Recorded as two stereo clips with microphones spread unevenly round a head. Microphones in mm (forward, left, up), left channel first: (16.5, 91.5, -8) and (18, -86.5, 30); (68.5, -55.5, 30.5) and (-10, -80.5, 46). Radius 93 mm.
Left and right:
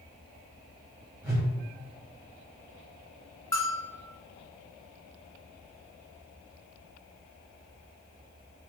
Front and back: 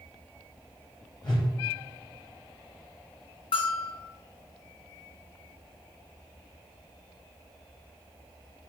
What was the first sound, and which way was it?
A whoosh, 10° right.